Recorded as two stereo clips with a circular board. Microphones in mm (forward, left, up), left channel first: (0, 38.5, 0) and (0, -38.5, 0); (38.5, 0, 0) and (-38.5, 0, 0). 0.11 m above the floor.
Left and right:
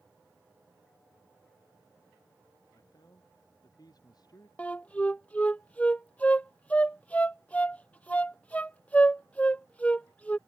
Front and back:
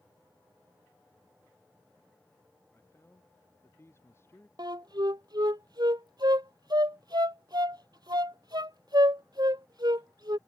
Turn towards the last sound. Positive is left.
turn(degrees=160)